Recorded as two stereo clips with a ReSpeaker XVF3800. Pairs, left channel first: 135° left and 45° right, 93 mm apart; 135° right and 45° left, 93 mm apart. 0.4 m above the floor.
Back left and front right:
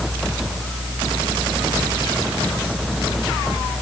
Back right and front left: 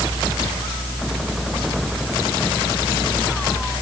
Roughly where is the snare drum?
I don't hear a snare drum.